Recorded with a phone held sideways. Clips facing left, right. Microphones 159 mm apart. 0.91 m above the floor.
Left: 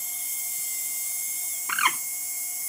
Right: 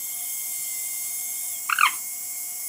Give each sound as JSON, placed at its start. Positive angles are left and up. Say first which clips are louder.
{"t": 1.7, "sound": "a bird", "louder": "right 2 dB", "side_deg": 45, "distance_m": 0.7}